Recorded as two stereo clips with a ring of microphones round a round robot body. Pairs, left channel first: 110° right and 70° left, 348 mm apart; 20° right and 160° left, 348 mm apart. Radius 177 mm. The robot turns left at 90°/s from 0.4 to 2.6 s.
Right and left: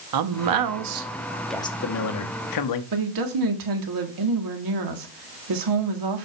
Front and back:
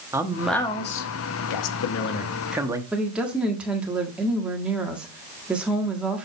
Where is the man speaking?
75° left, 1.1 m; by 2.8 s 120° right, 1.1 m.